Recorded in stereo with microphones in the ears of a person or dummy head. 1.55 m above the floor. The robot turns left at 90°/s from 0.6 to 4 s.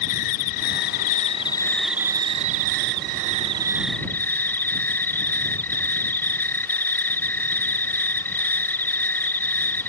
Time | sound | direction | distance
0.0 | an insect | 115° left | ?